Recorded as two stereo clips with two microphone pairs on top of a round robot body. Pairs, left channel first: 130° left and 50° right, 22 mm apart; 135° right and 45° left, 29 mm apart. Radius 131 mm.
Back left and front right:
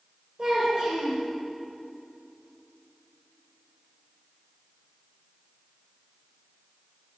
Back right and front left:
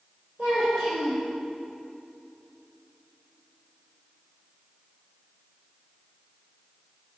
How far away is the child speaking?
About 3 m.